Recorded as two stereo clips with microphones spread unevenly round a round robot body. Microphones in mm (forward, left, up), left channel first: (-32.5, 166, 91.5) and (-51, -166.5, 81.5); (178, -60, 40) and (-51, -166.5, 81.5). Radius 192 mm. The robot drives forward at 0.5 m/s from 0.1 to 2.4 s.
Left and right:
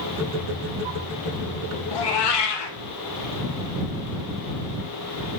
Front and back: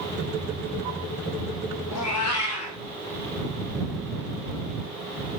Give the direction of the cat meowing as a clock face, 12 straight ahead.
10 o'clock.